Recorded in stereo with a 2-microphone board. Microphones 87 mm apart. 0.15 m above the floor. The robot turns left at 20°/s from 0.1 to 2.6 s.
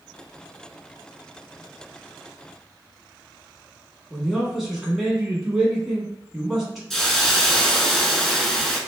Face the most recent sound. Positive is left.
turn(degrees=5)  # may be behind; listen again after turning